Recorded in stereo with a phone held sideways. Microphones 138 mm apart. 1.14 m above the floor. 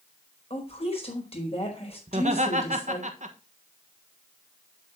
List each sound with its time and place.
0.5 s a woman speaking: 50° left (ahead or behind), 4 m
2.1 s laughter: 60° right (ahead or behind), 1.4 m